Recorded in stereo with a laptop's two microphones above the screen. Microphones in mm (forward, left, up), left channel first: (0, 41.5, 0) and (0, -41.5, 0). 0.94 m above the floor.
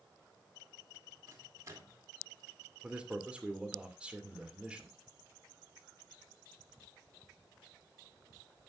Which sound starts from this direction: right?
A microwave, at 1.3 s.